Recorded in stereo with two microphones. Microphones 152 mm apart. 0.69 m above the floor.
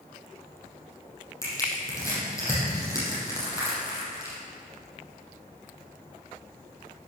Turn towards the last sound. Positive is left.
turn(degrees=20)  # may be behind; listen again after turning